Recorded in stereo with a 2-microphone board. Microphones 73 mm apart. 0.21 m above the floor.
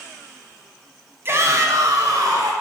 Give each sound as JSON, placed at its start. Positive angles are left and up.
{"t": 1.2, "sound": "a shout", "side_deg": -35, "distance_m": 1.2}